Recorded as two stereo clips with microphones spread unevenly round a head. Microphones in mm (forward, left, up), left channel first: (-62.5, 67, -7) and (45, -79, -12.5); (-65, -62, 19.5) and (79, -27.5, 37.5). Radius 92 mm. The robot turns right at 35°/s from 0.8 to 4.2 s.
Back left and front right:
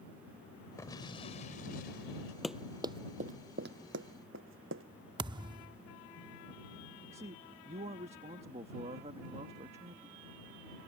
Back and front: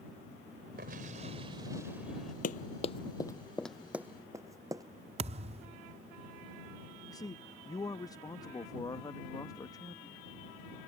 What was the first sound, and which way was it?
An explosion, 50° left.